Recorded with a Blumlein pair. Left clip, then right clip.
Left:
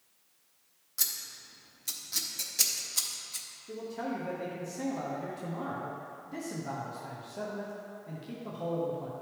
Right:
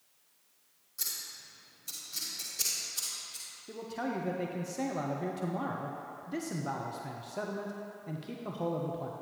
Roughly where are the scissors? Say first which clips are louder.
Left 3 dB; ahead left.